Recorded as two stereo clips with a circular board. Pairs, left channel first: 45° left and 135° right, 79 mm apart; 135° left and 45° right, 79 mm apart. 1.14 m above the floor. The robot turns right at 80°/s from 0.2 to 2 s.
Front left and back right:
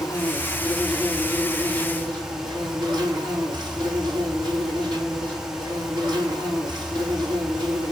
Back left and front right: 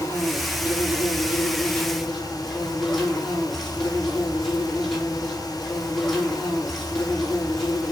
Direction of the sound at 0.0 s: 75° left.